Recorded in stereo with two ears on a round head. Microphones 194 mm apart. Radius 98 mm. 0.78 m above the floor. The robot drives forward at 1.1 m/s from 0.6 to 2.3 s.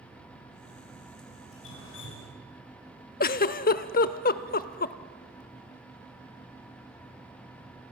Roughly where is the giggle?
Left.